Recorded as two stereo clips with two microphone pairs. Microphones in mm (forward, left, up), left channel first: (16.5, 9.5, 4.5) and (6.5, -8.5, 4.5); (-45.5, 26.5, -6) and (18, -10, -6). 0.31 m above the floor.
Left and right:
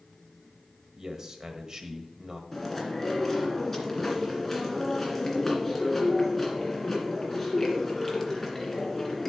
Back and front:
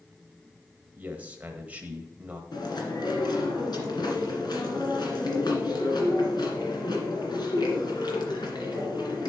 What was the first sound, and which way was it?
A man speaking, 85° right.